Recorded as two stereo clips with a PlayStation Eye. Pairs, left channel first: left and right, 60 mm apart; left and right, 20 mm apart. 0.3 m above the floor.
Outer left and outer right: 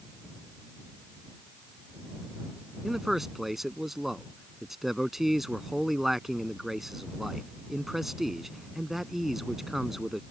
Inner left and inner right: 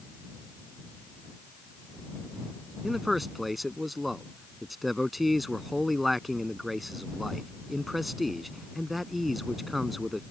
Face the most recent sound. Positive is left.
turn(degrees=-5)  # may be behind; listen again after turning